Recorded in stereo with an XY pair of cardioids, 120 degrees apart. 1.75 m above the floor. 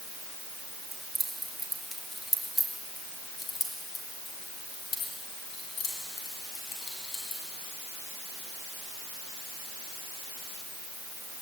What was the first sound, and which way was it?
Keys jangling, 15° right.